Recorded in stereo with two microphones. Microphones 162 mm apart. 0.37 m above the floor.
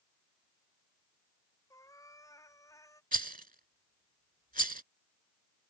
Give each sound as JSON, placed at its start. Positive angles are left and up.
{"t": 1.7, "sound": "a cat meowing", "side_deg": 20}
{"t": 3.1, "sound": "a rattle", "side_deg": -60}